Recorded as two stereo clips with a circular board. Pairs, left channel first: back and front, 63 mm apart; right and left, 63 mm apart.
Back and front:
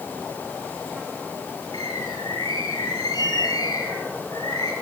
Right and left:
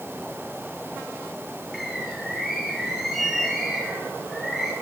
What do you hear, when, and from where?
1.7 s a bird: straight behind, 9.5 m